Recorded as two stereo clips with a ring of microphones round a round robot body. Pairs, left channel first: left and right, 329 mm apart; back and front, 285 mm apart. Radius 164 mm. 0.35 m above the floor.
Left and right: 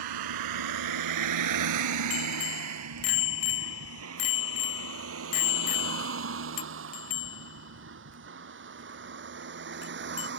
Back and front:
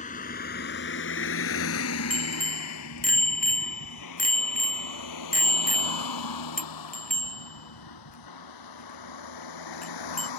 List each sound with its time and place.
0.0 s a vehicle: 110° right; by 10.4 s 150° right
2.1 s a bicycle bell: 120° left